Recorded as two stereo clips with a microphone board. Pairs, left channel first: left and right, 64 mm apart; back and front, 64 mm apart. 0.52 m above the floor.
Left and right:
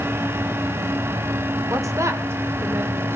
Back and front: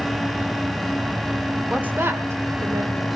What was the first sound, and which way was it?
A woman speaking, 70° right.